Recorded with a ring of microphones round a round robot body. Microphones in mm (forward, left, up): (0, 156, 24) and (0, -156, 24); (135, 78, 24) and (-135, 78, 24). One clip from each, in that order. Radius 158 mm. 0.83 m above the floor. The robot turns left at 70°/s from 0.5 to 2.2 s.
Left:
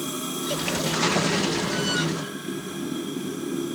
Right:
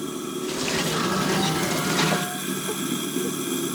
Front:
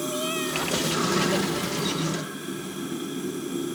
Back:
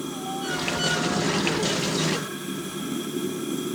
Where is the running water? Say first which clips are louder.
Even, front 3 dB; 25° left, 5.5 m; by 3.8 s 95° right, 5.5 m.